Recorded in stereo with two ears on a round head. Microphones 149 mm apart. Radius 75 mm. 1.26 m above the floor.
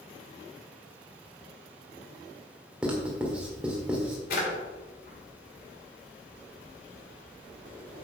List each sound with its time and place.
2.8 s writing: 5° right (ahead or behind), 1.9 m
4.3 s a drawer: 55° left (ahead or behind), 2.5 m